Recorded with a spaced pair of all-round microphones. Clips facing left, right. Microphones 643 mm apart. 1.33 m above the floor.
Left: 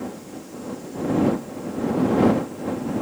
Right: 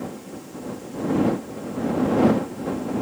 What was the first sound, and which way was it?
Only background noise.